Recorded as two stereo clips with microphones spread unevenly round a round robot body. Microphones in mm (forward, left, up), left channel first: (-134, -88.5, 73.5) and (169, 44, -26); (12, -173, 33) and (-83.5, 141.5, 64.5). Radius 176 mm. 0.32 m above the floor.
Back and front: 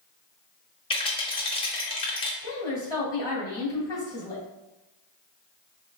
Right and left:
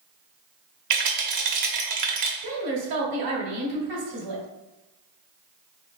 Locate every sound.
0.9 s a rattle: 115° left, 1.0 m
2.4 s a woman speaking: 115° left, 1.9 m